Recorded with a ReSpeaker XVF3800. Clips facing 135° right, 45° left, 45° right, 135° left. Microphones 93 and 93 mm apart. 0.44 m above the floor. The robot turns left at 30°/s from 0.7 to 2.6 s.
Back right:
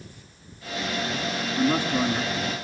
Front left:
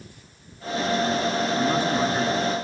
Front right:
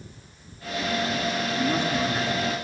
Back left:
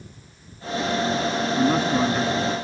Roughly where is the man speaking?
Behind left.